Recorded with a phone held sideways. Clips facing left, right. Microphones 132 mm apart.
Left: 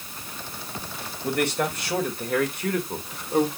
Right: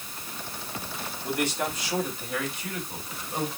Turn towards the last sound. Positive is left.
turn(degrees=55)  # may be behind; listen again after turning